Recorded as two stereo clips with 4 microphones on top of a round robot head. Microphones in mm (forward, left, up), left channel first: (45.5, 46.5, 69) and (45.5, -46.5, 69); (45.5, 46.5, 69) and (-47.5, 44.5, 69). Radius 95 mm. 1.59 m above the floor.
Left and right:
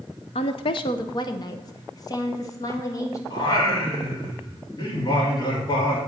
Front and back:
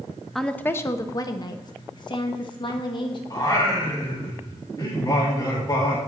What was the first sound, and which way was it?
A woman speaking, 90° left.